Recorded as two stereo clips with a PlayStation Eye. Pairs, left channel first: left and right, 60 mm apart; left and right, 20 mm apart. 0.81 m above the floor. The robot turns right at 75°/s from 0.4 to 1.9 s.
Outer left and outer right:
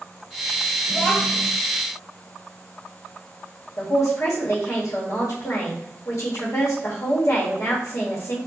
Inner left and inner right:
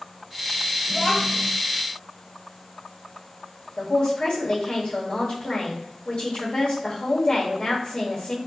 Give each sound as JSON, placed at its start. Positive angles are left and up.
{"t": 0.9, "sound": "a child speaking", "azimuth_deg": 25, "distance_m": 1.0}
{"t": 3.8, "sound": "a man speaking", "side_deg": 60, "distance_m": 1.1}